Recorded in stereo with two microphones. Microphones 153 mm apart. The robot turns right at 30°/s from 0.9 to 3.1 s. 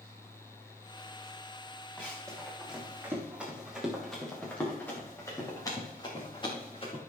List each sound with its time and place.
2.0 s running footsteps: 10° left (ahead or behind), 5.5 m; by 7.0 s 35° left (ahead or behind), 6.5 m